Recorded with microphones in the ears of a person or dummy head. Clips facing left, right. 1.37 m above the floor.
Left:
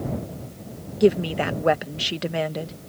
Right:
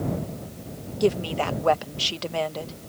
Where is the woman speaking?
25° left (ahead or behind).